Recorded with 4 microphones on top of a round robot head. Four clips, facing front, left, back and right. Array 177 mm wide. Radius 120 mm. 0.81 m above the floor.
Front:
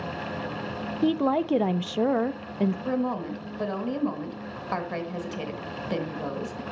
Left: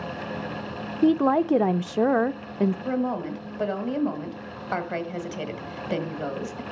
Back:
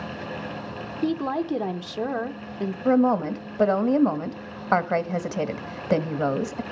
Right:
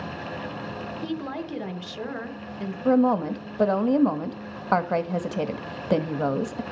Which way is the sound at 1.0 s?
75° left.